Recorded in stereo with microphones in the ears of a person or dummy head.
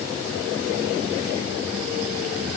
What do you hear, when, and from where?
Only background noise.